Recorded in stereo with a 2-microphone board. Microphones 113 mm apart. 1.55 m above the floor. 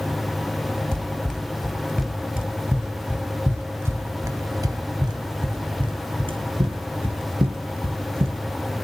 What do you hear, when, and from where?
0.9 s running footsteps: 10° left (ahead or behind), 2.5 m; by 8.4 s 55° right (ahead or behind), 3 m